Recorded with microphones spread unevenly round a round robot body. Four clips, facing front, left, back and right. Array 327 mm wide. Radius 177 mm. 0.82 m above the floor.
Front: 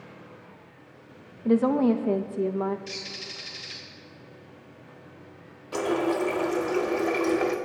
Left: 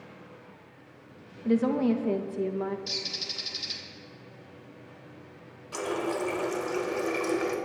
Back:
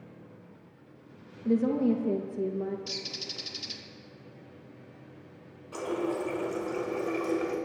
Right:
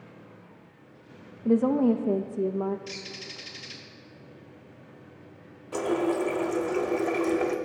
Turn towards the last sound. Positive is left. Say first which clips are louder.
# right 5 dB, front 6 dB
turn(degrees=-25)